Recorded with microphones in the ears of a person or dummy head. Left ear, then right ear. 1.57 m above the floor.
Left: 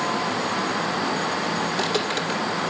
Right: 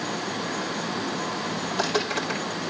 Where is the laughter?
I don't hear laughter.